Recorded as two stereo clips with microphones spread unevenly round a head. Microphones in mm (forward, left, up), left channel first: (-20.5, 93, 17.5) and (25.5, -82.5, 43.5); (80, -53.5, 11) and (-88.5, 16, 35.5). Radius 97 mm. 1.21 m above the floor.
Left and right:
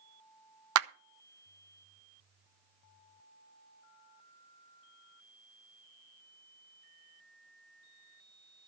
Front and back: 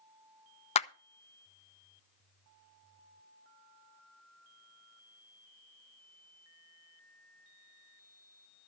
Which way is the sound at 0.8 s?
75° right.